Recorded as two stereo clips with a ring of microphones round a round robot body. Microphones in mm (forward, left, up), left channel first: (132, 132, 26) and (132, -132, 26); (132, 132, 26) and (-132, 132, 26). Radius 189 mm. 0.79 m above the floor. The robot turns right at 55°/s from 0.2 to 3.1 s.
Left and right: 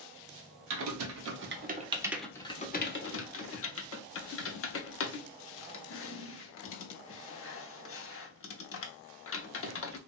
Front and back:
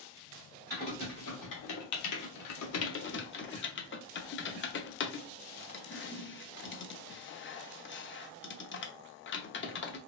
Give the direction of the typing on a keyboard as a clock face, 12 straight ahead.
3 o'clock.